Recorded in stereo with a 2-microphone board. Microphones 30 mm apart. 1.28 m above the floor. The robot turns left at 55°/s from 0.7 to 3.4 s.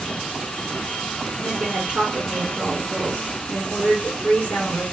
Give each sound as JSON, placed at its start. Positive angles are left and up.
{"t": 1.4, "sound": "a woman speaking", "azimuth_deg": -130, "distance_m": 2.5}